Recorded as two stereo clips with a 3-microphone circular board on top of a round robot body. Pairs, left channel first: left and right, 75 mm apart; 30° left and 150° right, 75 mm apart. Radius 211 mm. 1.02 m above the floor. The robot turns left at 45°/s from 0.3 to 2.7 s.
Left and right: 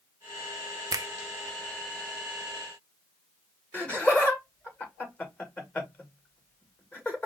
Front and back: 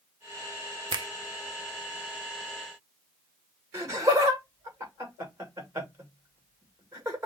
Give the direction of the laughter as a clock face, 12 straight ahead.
7 o'clock.